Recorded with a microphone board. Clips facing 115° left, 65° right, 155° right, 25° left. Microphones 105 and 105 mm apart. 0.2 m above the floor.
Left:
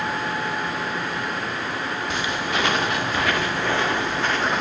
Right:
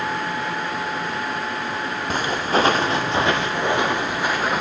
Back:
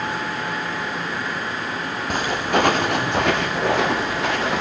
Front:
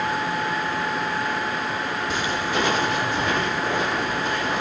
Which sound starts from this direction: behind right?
Footsteps, at 2.1 s.